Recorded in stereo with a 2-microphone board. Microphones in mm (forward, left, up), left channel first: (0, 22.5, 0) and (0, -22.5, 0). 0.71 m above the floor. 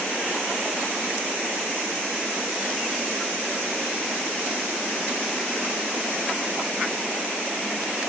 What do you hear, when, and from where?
Only background noise.